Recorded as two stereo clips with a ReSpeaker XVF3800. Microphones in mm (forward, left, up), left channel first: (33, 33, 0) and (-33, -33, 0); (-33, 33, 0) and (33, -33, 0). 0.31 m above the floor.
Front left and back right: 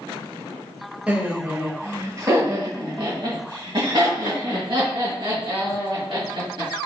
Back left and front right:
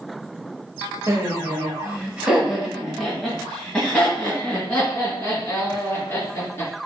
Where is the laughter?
65° right, 1.1 m; by 6.7 s 155° right, 3 m.